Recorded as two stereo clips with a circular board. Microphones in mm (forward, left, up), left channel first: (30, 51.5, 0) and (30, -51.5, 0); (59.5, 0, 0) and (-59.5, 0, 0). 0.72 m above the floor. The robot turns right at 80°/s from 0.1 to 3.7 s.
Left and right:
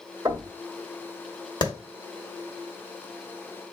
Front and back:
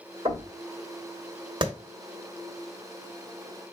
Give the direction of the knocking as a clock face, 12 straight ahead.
4 o'clock.